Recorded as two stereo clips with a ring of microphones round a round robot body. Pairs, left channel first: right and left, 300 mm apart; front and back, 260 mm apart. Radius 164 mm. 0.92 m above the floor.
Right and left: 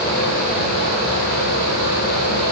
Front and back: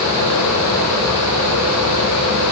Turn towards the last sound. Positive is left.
No sound to turn to.